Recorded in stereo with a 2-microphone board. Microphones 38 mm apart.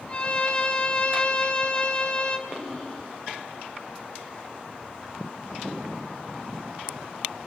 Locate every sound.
0.1 s a violin: 30° left (ahead or behind), 1.3 m
2.5 s breathing: 10° left (ahead or behind), 4 m